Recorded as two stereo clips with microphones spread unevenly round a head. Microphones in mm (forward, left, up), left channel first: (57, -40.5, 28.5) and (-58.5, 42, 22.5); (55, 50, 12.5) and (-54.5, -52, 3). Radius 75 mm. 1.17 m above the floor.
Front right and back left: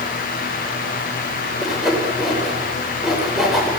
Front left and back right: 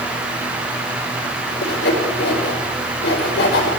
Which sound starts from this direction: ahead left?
Sawing, at 1.6 s.